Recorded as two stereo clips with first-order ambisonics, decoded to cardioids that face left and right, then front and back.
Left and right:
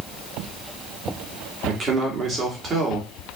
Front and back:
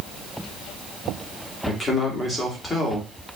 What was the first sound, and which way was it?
A man speaking, 60° right.